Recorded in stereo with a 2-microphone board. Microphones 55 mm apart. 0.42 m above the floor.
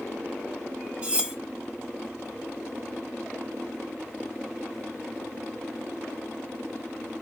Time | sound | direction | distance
1.0 | cutlery clinking | 20° right (ahead or behind) | 0.6 m